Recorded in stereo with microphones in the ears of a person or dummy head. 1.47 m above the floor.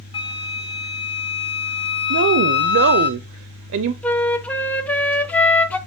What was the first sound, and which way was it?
A flute, 25° left (ahead or behind).